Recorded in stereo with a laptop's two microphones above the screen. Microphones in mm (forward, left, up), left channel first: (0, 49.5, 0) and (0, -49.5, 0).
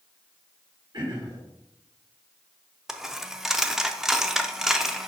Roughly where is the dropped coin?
Centre.